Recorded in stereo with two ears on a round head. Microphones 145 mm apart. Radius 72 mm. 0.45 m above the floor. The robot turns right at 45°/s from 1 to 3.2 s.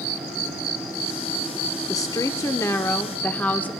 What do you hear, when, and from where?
1.9 s a woman speaking: 20° left (ahead or behind), 0.8 m; by 3.7 s 10° left (ahead or behind), 0.8 m